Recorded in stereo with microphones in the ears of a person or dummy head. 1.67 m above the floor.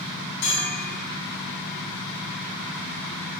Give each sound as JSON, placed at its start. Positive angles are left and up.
{"t": 0.4, "sound": "a bell", "side_deg": 75, "distance_m": 6.5}